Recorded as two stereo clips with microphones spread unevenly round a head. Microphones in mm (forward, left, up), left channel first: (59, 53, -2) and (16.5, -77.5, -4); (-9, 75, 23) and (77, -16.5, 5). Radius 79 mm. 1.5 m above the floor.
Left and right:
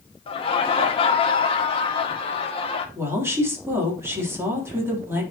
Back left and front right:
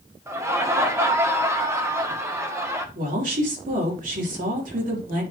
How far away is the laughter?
About 1.9 m.